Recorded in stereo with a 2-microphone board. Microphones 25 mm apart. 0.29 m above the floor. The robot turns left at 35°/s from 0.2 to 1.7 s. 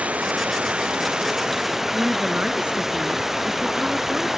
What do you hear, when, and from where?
0.0 s running water: 110° right; by 4.4 s 165° right
1.9 s a woman speaking: 50° right (ahead or behind)